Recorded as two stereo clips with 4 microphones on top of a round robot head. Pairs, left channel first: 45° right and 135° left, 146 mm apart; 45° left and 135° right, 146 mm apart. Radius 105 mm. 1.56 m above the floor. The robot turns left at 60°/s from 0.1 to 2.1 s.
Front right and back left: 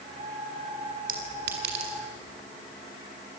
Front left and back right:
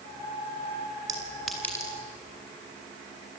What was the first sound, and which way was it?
A clink, 155° left.